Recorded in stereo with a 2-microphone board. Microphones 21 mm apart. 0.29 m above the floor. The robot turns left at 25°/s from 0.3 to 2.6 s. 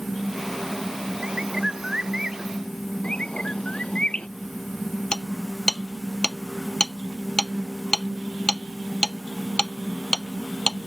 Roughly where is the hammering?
Left.